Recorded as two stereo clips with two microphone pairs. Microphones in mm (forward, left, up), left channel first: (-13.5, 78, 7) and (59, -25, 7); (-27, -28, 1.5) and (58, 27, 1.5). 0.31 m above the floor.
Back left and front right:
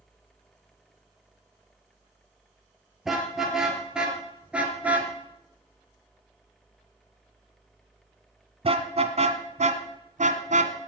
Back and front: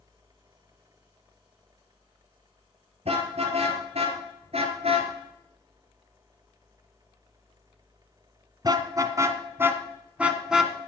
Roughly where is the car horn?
Ahead left.